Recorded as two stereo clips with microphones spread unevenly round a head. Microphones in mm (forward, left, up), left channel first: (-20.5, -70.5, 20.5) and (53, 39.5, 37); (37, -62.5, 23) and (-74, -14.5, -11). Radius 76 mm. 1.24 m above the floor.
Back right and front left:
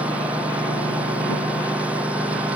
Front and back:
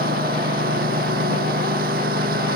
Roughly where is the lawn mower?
Behind left.